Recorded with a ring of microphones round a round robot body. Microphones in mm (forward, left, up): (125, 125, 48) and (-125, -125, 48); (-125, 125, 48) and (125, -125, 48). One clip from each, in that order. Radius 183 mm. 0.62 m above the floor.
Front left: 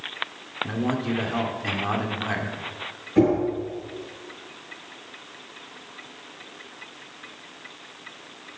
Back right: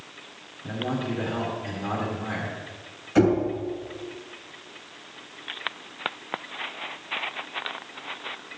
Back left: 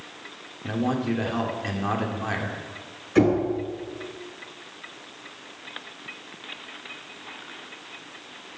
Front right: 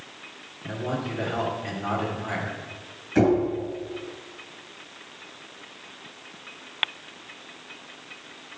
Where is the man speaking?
95° left, 2 m.